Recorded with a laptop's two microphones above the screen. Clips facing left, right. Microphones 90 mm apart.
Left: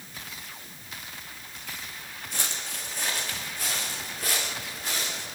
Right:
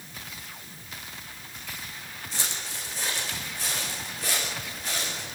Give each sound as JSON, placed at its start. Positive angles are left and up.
{"t": 2.3, "sound": "footsteps", "side_deg": 55, "distance_m": 4.0}